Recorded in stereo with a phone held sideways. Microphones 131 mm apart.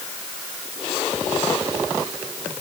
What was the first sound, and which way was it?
Only background noise.